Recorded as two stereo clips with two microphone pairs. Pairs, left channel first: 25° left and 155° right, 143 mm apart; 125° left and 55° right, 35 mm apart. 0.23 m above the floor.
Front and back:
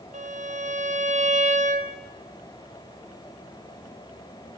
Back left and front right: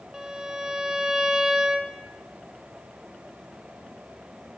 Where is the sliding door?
I don't hear a sliding door.